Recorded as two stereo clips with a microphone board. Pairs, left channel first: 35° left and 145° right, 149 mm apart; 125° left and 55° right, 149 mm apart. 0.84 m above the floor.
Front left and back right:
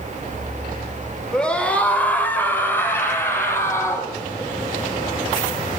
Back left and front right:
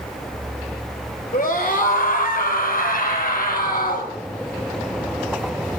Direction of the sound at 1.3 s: 120° left.